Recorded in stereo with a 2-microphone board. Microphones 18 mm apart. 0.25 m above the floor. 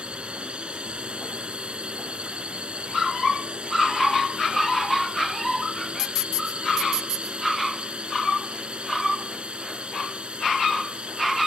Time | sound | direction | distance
0.0 | a drone | 65° right (ahead or behind) | ?